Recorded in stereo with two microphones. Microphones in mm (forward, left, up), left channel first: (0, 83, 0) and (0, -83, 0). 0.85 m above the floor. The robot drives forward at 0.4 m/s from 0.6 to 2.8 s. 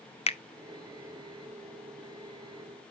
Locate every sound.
0.3 s a finger snap: 40° left (ahead or behind), 0.5 m